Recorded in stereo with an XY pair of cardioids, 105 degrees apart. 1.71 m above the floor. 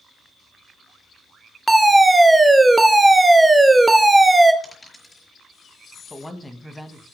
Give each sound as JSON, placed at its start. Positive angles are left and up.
{"t": 1.7, "sound": "a fire alarm", "azimuth_deg": -15, "distance_m": 1.3}
{"t": 4.6, "sound": "a dropped coin", "azimuth_deg": 10, "distance_m": 5.0}
{"t": 6.1, "sound": "a woman speaking", "azimuth_deg": 10, "distance_m": 2.0}